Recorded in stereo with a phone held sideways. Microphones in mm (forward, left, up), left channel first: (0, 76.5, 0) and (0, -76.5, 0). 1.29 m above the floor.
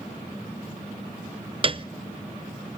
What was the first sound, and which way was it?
A piano, 35° right (ahead or behind).